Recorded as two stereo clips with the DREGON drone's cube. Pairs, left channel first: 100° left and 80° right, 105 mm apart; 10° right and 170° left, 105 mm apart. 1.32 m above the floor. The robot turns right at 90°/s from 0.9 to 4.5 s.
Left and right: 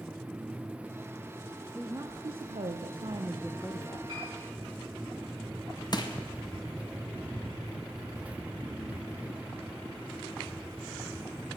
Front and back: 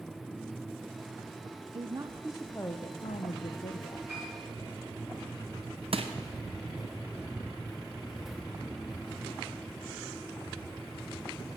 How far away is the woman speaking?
About 0.6 m.